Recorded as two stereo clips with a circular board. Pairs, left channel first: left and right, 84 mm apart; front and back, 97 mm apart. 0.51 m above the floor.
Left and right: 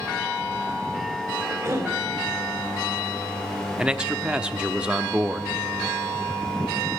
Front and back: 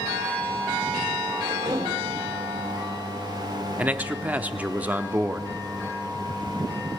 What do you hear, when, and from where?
1.4 s a cough: 145° right, 3 m
3.8 s a man speaking: 145° right, 0.7 m